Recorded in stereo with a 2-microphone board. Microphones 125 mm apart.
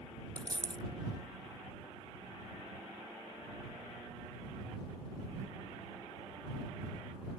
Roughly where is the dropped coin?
Left.